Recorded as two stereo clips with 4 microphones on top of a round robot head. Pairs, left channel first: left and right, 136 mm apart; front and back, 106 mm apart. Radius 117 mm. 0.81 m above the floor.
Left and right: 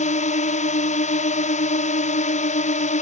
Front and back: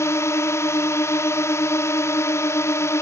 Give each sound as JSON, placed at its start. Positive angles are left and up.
{"t": 0.0, "sound": "a drone", "azimuth_deg": 65}